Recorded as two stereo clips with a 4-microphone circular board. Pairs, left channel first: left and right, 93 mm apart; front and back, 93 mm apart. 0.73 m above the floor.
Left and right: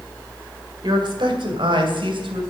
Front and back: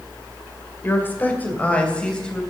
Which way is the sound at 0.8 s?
65° right.